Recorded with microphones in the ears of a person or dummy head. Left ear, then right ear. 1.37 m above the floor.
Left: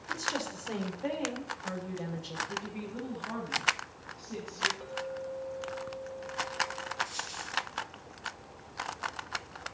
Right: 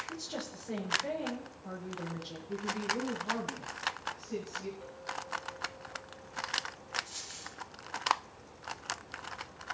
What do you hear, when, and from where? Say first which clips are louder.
0.1 s a woman speaking: left 7 dB; 40° left (ahead or behind), 5.5 m
2.5 s a woman speaking: right 4 dB; centre (ahead or behind), 7.5 m
4.8 s a clink: left 4 dB; 50° left (ahead or behind), 5 m
7.0 s a dropped coin: left 6 dB; 20° left (ahead or behind), 9 m